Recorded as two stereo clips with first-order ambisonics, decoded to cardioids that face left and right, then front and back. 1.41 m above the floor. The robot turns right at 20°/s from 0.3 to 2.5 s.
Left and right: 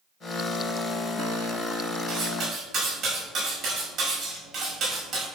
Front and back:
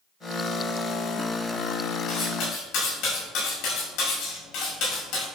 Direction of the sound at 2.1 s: 35° right.